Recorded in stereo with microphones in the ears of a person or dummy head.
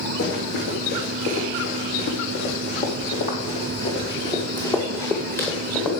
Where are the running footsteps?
65° left (ahead or behind), 4.5 m; by 5.9 s 5° left (ahead or behind), 3.5 m.